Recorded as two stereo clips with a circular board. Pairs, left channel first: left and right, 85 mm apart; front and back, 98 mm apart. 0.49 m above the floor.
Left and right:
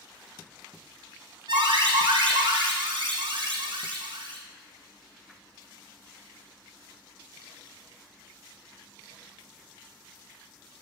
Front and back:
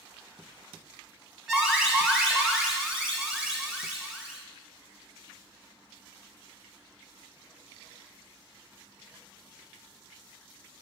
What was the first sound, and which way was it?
An alarm, 95° right.